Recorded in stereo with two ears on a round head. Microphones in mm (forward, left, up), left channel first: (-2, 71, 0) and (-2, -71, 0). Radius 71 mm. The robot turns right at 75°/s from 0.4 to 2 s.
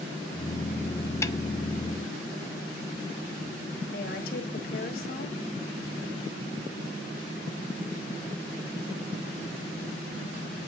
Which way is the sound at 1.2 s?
15° left (ahead or behind).